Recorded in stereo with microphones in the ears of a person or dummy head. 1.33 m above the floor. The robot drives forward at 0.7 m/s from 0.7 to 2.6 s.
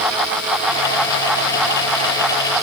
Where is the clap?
No clap in this recording.